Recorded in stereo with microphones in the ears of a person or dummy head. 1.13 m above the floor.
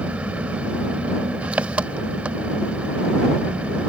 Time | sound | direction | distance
0.0 | an engine running | 5° right (ahead or behind) | ?